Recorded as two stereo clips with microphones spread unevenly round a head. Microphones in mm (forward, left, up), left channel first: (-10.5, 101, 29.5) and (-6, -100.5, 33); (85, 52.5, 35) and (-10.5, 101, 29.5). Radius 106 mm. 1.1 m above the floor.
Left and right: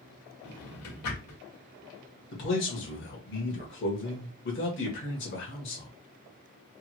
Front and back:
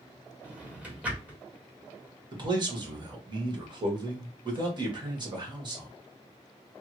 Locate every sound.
0.4 s a drawer: 75° left, 1.4 m
2.3 s a man speaking: 110° left, 1.6 m